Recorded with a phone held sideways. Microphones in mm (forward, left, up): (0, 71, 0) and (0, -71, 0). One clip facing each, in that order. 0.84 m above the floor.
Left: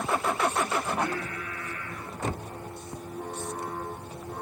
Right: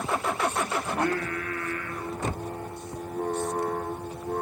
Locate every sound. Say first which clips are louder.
0.8 s singing: right 3 dB; 70° right (ahead or behind), 2.5 m